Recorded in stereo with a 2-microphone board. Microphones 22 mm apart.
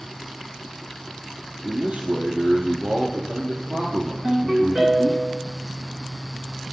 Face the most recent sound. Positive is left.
turn(degrees=-5)  # may be behind; listen again after turning